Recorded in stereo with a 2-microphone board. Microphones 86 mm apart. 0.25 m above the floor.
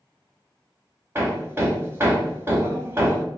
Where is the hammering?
30° right (ahead or behind), 0.7 m.